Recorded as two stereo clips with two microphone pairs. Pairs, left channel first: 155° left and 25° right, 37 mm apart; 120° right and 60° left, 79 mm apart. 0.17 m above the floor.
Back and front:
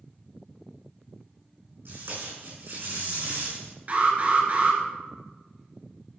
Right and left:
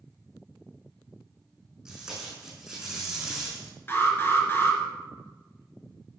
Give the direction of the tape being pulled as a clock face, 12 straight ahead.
1 o'clock.